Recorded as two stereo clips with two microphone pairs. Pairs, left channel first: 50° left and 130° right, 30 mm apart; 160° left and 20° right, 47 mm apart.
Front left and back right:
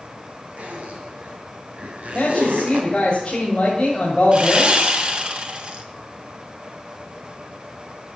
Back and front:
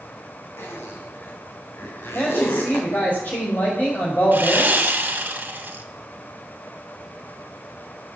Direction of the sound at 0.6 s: 170° right.